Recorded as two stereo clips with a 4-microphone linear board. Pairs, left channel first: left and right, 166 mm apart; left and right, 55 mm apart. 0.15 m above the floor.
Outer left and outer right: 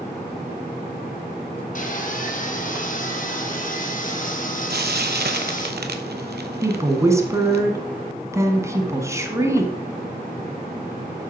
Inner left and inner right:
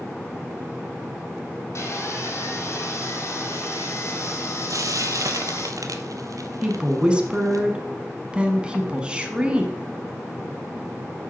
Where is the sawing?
55° left (ahead or behind), 1.3 m.